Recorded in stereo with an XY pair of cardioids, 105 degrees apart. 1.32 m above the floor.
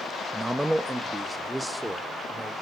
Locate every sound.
0.3 s a man speaking: 10° right, 0.8 m; by 2.5 s 5° right, 4 m